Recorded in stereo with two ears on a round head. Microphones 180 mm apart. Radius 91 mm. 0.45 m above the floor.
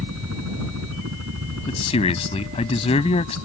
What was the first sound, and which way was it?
A helicopter, 75° right (ahead or behind).